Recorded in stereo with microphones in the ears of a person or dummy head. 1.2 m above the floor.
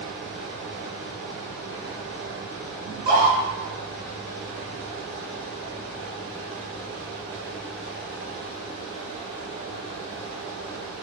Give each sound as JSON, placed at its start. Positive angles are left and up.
{"t": 0.0, "sound": "a fan", "side_deg": -55, "distance_m": 1.3}
{"t": 2.9, "sound": "a scream", "side_deg": -30, "distance_m": 2.0}